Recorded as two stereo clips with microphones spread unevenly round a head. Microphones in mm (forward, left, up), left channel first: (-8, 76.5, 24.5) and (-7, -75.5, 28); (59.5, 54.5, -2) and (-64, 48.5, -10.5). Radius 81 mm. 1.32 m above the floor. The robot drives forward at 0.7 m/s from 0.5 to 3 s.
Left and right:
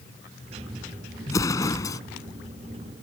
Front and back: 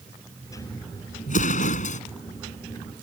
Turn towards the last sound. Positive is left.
turn(degrees=20)